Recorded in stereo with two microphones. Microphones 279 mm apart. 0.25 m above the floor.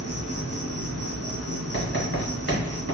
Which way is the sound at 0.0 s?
60° right (ahead or behind).